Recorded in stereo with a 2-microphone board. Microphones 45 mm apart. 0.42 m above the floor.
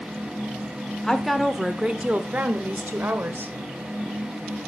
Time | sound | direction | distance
1.0 | a woman speaking | 10° left (ahead or behind) | 0.9 m